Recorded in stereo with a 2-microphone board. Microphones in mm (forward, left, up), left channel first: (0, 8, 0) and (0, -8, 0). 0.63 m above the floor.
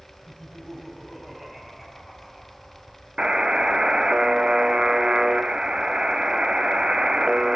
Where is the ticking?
I don't hear ticking.